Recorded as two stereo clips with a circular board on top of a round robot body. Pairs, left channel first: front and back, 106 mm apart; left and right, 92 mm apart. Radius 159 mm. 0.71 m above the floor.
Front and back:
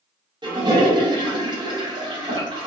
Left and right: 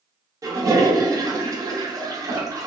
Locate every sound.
0.4 s a toilet flushing: 140° right, 0.9 m